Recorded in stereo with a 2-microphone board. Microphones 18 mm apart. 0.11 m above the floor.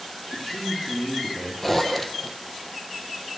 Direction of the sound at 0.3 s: 35° left (ahead or behind).